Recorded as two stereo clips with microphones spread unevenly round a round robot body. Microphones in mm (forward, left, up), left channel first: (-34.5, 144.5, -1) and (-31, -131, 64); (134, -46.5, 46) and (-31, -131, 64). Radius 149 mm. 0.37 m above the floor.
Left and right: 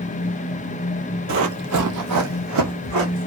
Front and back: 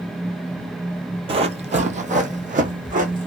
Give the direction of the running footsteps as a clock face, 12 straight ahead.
3 o'clock.